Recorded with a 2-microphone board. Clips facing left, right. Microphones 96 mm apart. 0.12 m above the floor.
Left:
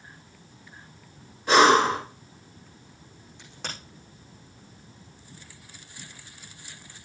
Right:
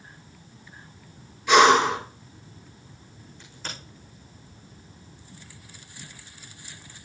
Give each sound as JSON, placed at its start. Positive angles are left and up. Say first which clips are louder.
{"t": 1.5, "sound": "breathing", "louder": "right 1 dB", "side_deg": 40, "distance_m": 2.5}
{"t": 3.4, "sound": "a crack", "louder": "left 1 dB", "side_deg": 80, "distance_m": 7.0}